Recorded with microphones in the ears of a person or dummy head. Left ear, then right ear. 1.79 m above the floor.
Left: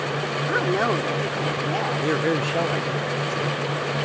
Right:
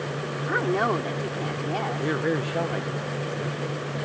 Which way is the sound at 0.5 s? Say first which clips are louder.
Left 1 dB; 5° left (ahead or behind).